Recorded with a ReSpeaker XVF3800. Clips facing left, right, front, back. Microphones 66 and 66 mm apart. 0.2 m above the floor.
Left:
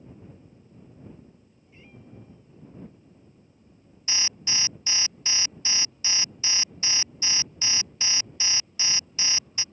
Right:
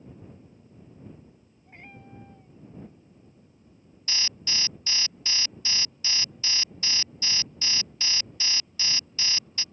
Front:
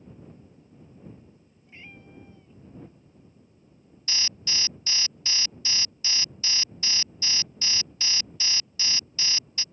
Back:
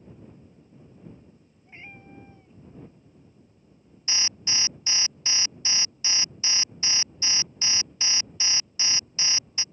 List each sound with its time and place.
1.7 s a cat meowing: 115° right
4.1 s an alarm: 140° left